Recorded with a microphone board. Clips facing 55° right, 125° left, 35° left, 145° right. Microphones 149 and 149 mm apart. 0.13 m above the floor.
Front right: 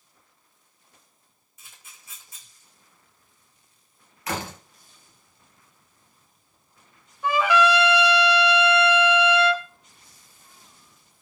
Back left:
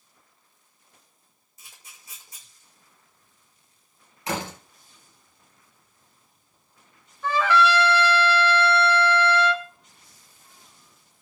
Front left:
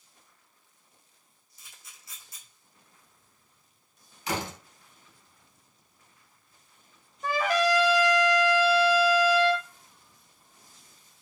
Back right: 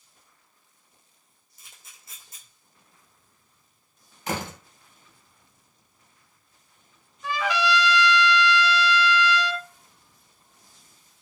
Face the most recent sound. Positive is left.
turn(degrees=15)